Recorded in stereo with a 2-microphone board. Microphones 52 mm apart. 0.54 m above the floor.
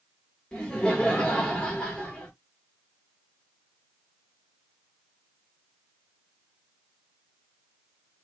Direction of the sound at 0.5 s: 20° left (ahead or behind).